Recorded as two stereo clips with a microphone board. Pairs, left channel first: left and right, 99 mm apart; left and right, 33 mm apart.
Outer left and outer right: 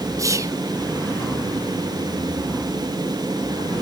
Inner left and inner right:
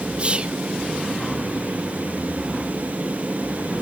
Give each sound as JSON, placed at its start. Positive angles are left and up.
{"t": 0.2, "sound": "whispering", "side_deg": -30, "distance_m": 1.0}